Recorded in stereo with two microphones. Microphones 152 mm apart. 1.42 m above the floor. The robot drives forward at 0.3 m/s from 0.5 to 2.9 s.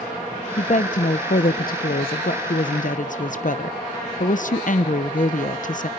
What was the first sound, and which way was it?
A woman speaking, 50° left (ahead or behind).